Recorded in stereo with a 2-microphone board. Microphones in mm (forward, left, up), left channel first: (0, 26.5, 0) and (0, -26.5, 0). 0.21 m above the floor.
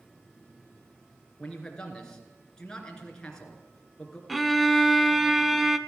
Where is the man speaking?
15° left (ahead or behind), 2.5 m.